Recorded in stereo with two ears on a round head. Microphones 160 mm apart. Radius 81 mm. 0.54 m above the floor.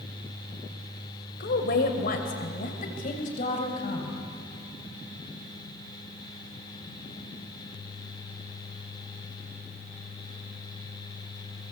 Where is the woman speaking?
60° left (ahead or behind), 2.5 m; by 4.1 s 40° left (ahead or behind), 3.5 m.